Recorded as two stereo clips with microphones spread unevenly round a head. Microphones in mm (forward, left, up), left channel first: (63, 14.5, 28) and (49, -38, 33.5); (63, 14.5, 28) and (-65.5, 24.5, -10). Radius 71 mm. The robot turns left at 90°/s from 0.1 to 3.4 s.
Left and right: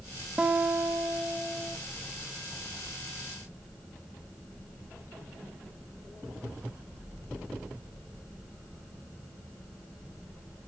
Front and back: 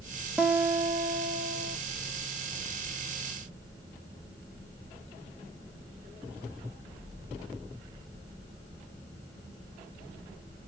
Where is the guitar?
70° right, 0.6 m; by 1.8 s 165° left, 0.6 m.